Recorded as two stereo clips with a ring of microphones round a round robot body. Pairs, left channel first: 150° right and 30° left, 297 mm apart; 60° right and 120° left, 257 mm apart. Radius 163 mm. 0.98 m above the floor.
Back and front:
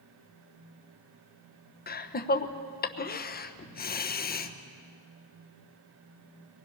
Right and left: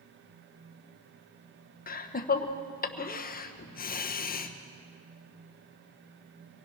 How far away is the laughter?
About 1.1 m.